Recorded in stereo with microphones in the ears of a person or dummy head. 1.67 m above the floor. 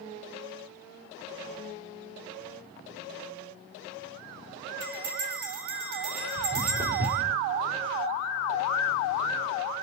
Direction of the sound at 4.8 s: 20° right (ahead or behind).